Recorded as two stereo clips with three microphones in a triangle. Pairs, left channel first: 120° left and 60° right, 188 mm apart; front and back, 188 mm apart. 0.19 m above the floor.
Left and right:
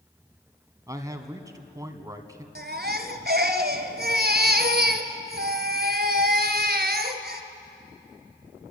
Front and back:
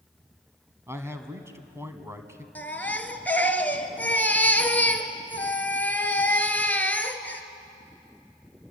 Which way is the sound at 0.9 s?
115° right.